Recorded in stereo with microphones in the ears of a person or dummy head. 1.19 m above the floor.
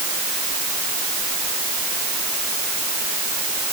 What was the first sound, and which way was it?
Only background noise.